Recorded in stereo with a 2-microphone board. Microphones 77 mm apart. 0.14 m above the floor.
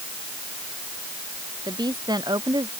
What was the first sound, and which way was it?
A woman speaking, 65° right (ahead or behind).